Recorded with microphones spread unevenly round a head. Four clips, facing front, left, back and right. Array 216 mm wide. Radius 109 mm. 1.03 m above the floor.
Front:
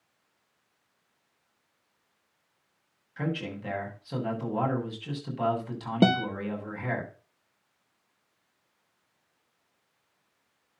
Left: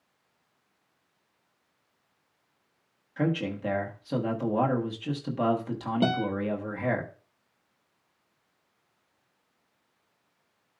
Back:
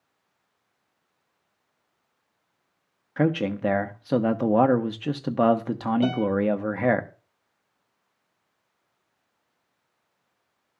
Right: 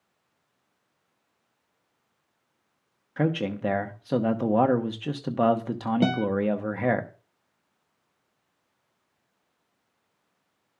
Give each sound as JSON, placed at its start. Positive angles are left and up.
{"t": 3.2, "sound": "a man speaking", "azimuth_deg": -165, "distance_m": 1.0}
{"t": 6.0, "sound": "a guitar", "azimuth_deg": -10, "distance_m": 0.8}